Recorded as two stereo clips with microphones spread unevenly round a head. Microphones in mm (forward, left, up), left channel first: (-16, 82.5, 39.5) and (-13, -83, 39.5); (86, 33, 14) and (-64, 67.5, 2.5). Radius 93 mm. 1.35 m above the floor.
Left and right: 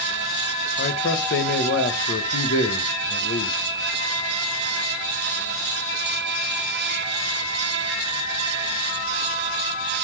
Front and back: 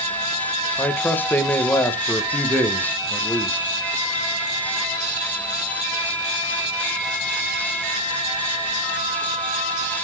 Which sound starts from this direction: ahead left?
A man speaking, at 0.8 s.